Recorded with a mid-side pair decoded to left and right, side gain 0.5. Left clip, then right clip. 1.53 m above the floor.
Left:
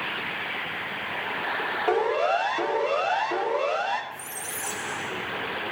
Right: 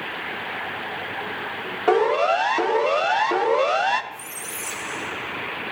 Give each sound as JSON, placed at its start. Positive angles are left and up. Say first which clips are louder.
{"t": 1.9, "sound": "a siren", "louder": "right 6 dB", "azimuth_deg": -35, "distance_m": 3.0}
{"t": 4.1, "sound": "a squeak", "louder": "right 1 dB", "azimuth_deg": -5, "distance_m": 2.5}